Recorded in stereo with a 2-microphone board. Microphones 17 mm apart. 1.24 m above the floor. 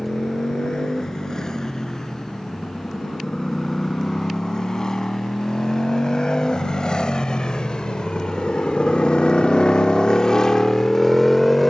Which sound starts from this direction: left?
A motorcycle, at 0.0 s.